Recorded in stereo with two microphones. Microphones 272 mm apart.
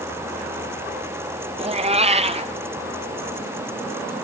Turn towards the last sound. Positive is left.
turn(degrees=-25)  # may be behind; listen again after turning